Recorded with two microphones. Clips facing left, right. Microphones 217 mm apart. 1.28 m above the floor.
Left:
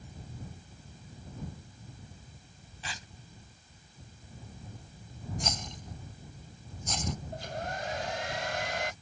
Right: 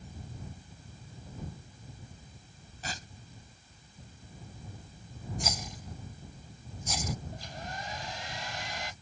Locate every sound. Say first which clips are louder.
2.8 s tearing paper: right 4 dB; 45° right (ahead or behind)
5.4 s a rattle: even; 5° right (ahead or behind)
7.3 s a hair dryer: left 5 dB; 70° left (ahead or behind)